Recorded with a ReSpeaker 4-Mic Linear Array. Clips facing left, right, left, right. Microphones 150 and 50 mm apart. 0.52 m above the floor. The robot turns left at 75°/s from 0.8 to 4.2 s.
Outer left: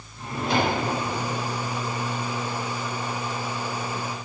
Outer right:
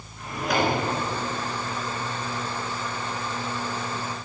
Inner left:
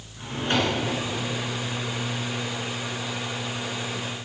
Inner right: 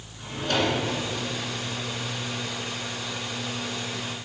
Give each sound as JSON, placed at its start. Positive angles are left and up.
{"t": 0.2, "sound": "a drawer", "side_deg": 30, "distance_m": 2.0}